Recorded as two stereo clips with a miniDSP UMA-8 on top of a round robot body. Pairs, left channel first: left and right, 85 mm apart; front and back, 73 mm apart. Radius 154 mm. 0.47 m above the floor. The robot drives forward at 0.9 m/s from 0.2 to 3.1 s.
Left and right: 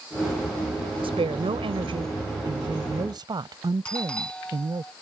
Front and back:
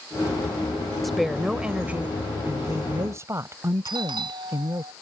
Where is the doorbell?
170° left.